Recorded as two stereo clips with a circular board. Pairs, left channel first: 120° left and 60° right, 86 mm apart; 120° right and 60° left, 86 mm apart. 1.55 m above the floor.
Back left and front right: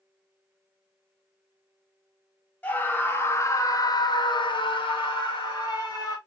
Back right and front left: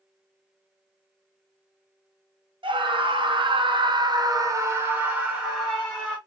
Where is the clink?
No clink in this recording.